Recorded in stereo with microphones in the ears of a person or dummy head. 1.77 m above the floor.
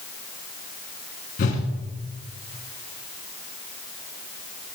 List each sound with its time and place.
1.4 s a whoosh: 35° left (ahead or behind), 1.5 m